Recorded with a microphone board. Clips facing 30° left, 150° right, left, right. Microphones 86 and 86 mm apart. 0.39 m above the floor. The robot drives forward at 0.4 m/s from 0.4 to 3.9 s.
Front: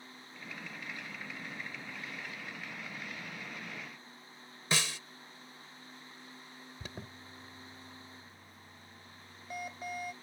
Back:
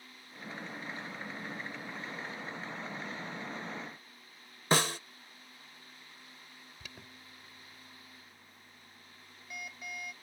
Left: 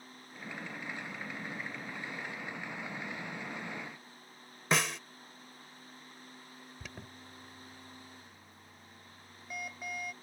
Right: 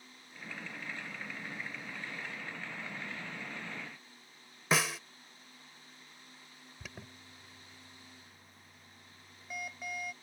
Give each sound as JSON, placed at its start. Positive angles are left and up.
{"t": 4.7, "sound": "a snare drum", "azimuth_deg": -175}
{"t": 6.8, "sound": "an alarm", "azimuth_deg": 0}